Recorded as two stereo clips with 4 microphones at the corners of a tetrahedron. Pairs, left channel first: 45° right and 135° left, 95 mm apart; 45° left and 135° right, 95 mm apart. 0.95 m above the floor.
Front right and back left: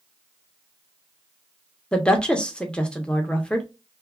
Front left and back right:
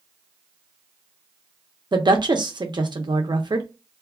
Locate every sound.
1.9 s a woman speaking: 120° right, 0.8 m